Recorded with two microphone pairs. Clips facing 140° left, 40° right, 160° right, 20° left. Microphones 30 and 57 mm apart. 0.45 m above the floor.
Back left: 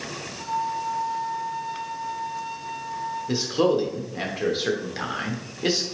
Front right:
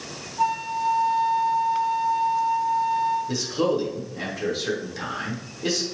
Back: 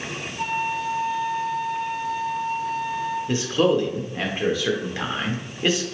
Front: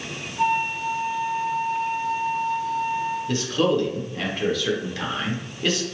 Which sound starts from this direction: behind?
A man speaking, at 3.3 s.